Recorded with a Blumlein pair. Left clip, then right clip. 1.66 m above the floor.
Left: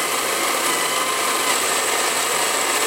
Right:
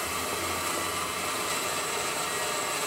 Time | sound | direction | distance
0.0 | a machine running | 35° left | 1.0 m